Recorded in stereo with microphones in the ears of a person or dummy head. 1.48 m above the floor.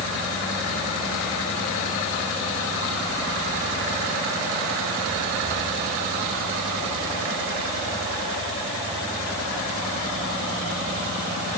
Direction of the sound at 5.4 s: 40° right (ahead or behind).